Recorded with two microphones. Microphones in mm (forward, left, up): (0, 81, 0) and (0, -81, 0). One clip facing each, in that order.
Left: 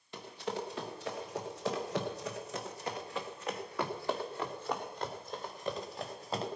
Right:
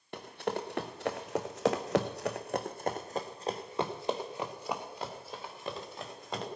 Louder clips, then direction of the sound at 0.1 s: Right 3 dB; 60° right (ahead or behind).